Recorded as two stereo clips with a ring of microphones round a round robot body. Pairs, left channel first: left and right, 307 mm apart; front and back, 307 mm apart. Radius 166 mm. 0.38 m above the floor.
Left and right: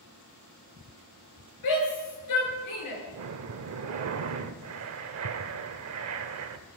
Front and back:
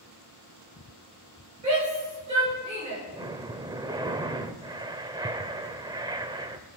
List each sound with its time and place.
1.6 s a shout: 110° left, 7.5 m; by 3.0 s 105° left, 6.5 m
3.1 s breathing: 105° right, 0.7 m